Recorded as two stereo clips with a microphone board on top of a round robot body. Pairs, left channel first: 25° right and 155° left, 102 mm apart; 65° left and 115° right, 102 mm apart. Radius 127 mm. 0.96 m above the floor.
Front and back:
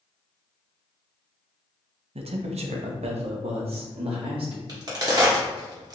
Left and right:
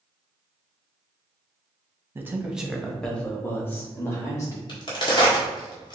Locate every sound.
2.1 s a man speaking: straight behind, 0.7 m; by 4.6 s 130° left, 1.7 m
4.7 s a crack: 110° left, 1.6 m